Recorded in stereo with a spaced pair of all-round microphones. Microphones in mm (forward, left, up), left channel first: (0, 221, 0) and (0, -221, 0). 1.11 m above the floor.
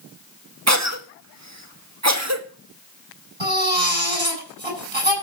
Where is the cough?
35° right (ahead or behind), 1.7 m.